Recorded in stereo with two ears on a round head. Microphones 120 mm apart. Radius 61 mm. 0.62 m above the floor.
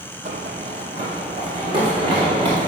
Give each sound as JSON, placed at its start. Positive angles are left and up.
{"t": 0.2, "sound": "running footsteps", "side_deg": -55, "distance_m": 1.3}